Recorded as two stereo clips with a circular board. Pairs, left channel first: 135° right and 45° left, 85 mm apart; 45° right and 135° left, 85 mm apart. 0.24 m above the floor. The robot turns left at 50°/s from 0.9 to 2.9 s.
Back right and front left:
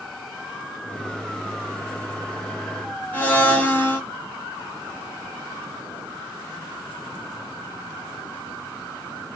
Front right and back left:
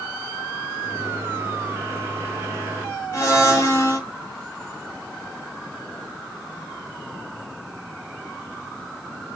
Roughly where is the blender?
Right.